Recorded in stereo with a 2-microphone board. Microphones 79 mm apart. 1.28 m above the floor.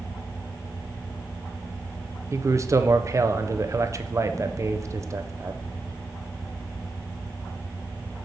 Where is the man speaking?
40° right (ahead or behind), 0.6 m.